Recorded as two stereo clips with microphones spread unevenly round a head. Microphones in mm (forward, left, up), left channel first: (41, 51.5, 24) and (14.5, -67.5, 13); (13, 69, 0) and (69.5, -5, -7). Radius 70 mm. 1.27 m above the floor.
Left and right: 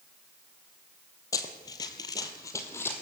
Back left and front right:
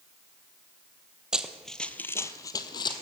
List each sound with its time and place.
1.3 s running footsteps: 30° left, 1.7 m; by 3.0 s 145° left, 2 m